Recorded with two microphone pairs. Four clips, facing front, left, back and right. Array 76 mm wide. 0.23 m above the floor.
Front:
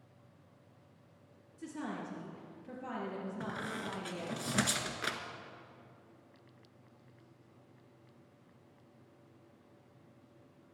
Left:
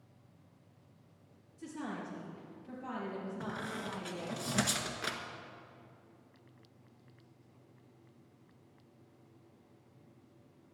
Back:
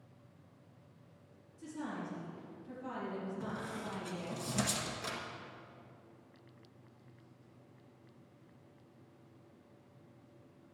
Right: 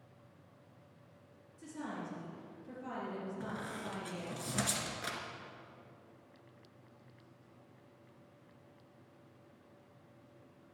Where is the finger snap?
No finger snap in this recording.